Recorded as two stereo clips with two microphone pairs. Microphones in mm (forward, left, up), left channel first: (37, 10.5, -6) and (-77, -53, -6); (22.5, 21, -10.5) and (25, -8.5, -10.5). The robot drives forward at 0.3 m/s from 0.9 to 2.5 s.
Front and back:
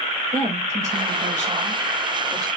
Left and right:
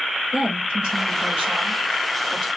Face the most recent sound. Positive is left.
turn(degrees=-140)